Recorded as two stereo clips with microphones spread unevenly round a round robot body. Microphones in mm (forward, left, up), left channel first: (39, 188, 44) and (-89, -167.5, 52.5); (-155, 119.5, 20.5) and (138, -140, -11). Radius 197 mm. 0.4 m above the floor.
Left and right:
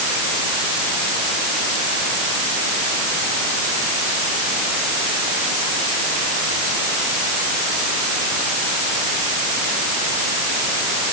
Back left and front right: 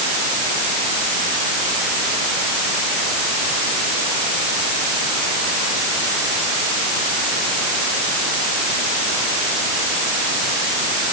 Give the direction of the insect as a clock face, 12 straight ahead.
I don't hear an insect.